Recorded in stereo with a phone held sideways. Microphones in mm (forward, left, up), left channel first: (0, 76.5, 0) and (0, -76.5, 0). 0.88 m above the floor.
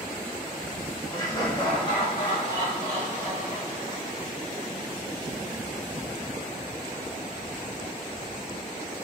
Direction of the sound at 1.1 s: 25° left (ahead or behind).